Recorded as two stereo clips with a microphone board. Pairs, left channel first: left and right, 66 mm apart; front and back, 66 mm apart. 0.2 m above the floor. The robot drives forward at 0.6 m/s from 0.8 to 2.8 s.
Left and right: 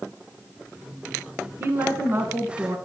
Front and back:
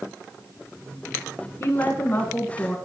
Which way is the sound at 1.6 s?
45° right.